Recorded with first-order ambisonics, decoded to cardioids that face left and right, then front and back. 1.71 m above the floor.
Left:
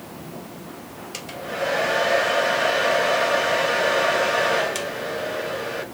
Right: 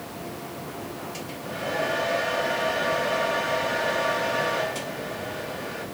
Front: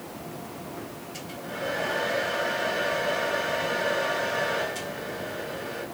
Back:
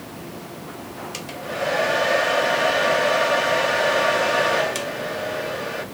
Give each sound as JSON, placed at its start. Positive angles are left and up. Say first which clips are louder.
{"t": 1.1, "sound": "a hair dryer", "louder": "left 10 dB, back 7 dB", "azimuth_deg": 140, "distance_m": 0.6}